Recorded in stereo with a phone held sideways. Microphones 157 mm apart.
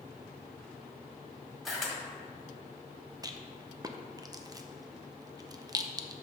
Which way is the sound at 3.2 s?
25° right (ahead or behind).